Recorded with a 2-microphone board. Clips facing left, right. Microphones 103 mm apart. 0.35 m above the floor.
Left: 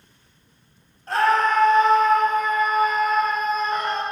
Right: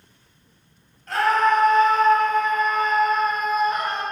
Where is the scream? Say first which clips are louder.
Even; 30° left (ahead or behind), 2 m; by 4.0 s 15° right (ahead or behind), 1.2 m.